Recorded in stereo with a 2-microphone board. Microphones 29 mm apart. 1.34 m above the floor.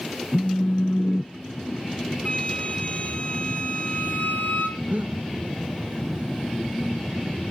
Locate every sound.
0.3 s a phone buzzing: 35° left (ahead or behind), 0.7 m
2.2 s a flute: 45° left (ahead or behind), 4 m
4.8 s breathing: 60° right (ahead or behind), 1.8 m